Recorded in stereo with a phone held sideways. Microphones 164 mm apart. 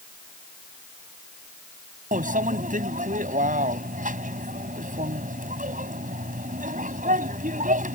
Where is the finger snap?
No finger snap in this recording.